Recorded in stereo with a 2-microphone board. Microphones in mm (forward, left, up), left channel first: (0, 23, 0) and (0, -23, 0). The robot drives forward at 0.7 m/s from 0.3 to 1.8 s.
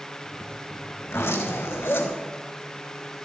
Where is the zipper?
70° left (ahead or behind), 4.5 m; by 2.2 s 65° left (ahead or behind), 4.5 m.